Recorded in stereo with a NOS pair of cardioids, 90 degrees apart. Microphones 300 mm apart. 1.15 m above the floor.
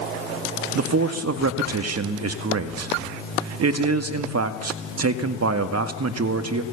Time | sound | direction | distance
0.8 | a man speaking | 55° right | 1.9 m